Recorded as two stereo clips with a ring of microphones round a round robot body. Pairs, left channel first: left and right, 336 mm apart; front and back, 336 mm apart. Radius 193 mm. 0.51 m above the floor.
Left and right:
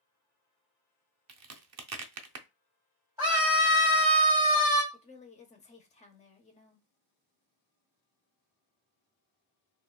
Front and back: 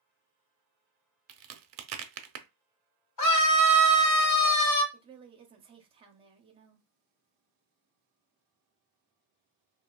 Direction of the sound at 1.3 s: 135° right.